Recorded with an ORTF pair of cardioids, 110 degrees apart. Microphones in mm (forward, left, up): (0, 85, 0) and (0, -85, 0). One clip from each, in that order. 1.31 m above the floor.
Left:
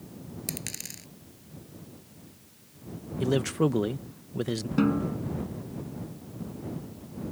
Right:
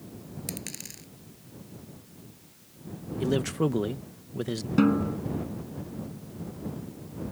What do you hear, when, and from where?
0.5 s a dropped coin: 20° left
3.2 s a man speaking: 10° left
4.8 s a snare drum: 10° right